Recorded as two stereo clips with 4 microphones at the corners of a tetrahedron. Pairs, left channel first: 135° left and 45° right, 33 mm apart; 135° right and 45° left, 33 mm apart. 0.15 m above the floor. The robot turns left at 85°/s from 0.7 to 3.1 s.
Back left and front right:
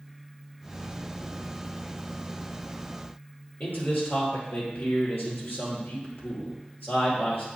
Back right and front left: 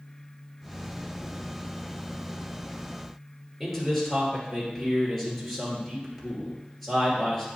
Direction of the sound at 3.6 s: 135° left.